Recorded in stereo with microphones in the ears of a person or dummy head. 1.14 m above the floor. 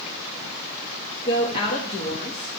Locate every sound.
1.2 s a woman speaking: 35° left (ahead or behind), 1.6 m